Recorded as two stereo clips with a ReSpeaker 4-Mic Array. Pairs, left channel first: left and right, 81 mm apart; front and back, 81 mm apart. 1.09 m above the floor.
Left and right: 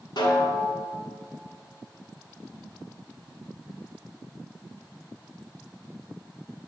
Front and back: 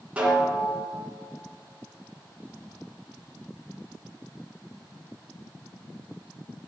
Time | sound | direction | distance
0.2 | a snare drum | 110° left | 2.5 m